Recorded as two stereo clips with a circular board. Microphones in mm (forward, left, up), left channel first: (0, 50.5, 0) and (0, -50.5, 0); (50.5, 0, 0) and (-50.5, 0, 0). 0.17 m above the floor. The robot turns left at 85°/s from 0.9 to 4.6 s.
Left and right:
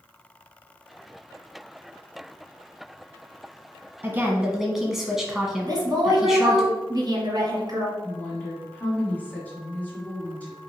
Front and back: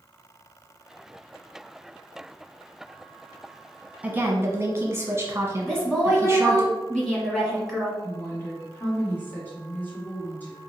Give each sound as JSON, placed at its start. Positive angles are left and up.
{"t": 4.0, "sound": "a woman speaking", "azimuth_deg": -125, "distance_m": 1.1}
{"t": 5.7, "sound": "a woman speaking", "azimuth_deg": -80, "distance_m": 1.5}
{"t": 8.0, "sound": "a woman speaking", "azimuth_deg": 35, "distance_m": 1.7}